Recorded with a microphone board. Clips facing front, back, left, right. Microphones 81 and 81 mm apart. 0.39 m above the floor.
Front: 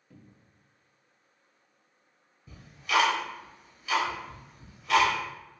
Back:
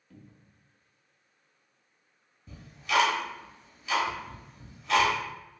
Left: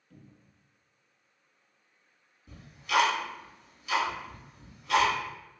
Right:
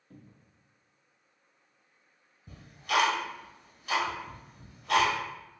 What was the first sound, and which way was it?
A cupboard door, 70° right.